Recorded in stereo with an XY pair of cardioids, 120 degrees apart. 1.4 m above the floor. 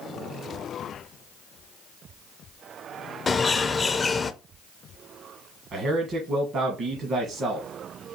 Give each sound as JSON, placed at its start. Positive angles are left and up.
{"t": 3.3, "sound": "a bird", "azimuth_deg": 25, "distance_m": 0.6}
{"t": 5.7, "sound": "a man speaking", "azimuth_deg": -50, "distance_m": 1.5}